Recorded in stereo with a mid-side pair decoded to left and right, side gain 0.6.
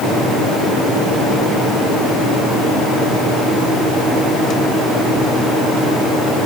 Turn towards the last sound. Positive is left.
No sound to turn to.